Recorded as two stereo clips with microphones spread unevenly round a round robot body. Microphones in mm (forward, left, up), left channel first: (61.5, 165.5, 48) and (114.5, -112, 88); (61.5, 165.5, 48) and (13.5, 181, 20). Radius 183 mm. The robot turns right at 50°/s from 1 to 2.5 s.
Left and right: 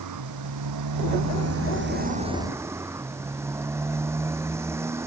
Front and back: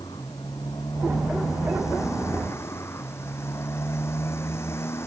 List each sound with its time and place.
0.0 s a motorcycle: 75° right; by 5.1 s straight ahead